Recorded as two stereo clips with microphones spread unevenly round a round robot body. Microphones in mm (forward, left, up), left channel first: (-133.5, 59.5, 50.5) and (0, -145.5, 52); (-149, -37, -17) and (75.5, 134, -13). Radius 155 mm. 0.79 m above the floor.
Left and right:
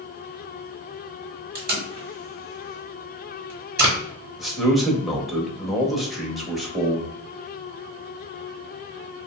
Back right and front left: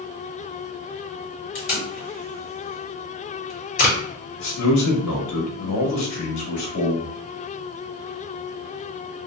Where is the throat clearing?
I don't hear throat clearing.